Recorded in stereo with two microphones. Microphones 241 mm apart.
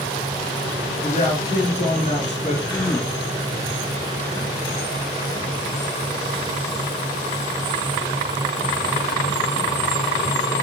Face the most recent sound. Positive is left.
turn(degrees=15)  # may be behind; listen again after turning